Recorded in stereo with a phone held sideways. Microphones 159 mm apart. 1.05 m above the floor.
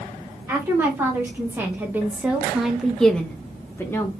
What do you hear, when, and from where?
0.5 s a woman speaking: 15° right (ahead or behind), 1.5 m; by 4.1 s 15° left (ahead or behind), 0.8 m